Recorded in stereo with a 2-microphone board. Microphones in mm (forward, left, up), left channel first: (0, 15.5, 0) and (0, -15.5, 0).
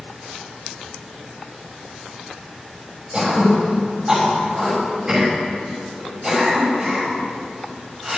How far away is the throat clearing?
About 6 m.